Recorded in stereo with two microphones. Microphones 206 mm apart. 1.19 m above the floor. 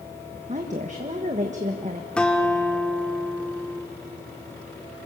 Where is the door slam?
I don't hear a door slam.